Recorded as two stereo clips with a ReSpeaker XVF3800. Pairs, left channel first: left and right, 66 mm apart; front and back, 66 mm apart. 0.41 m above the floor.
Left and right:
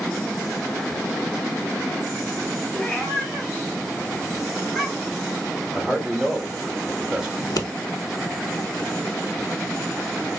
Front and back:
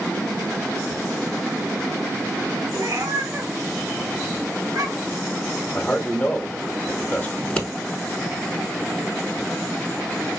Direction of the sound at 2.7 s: 160° left.